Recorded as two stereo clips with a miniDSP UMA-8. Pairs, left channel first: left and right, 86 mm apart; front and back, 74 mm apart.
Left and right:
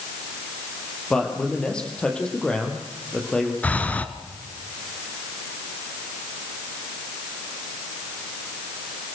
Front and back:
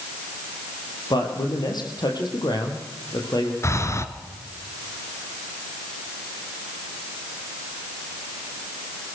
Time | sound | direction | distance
1.1 | a man speaking | 10° left | 4.5 m
3.6 | breathing | 25° left | 1.4 m